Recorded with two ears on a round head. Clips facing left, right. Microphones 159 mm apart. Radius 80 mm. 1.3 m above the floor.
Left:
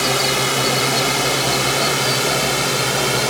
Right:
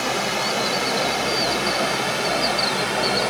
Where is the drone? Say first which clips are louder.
Left 4 dB; 65° left (ahead or behind); by 3.3 s 60° left (ahead or behind).